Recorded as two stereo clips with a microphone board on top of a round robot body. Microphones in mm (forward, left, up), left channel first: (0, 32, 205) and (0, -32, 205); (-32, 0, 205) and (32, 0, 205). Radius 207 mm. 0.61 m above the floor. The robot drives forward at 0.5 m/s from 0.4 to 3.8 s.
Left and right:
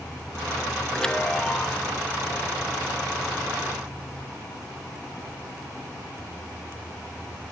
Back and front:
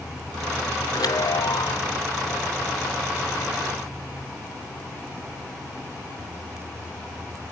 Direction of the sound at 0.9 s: 170° left.